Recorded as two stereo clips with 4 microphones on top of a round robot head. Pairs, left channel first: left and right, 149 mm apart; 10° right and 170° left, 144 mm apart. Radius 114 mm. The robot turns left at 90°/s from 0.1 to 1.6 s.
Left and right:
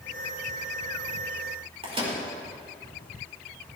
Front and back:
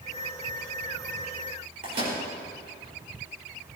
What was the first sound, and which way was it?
A microwave, 140° right.